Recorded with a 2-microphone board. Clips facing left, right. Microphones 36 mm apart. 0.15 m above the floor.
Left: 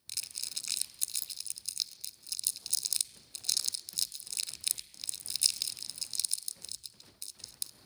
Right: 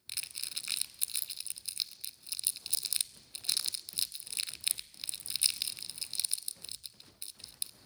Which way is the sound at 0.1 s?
25° right (ahead or behind).